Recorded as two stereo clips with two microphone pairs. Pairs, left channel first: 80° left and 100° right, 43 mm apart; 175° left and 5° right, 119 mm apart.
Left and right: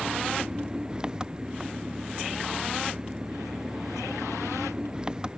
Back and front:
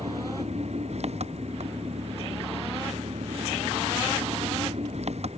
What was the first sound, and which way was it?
An engine running, 30° right.